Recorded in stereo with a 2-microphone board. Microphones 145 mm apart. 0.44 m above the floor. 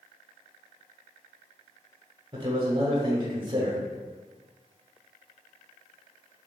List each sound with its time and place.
2.3 s a man speaking: 35° right (ahead or behind), 0.9 m